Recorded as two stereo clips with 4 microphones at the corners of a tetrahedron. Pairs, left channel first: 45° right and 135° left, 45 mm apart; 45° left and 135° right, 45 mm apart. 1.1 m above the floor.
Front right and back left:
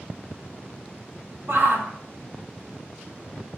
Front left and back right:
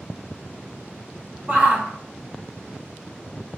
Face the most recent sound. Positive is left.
turn(degrees=175)